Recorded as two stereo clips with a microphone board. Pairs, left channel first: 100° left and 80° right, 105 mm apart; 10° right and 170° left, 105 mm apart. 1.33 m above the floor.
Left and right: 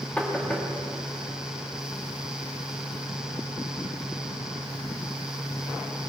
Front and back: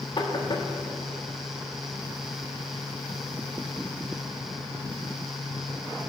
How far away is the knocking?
About 1.4 m.